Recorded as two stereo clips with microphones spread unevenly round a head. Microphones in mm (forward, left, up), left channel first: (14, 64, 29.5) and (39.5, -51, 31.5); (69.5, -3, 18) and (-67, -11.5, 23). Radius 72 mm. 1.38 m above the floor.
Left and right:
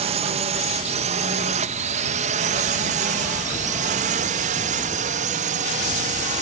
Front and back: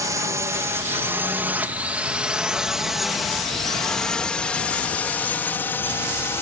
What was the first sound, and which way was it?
A drone, 110° right.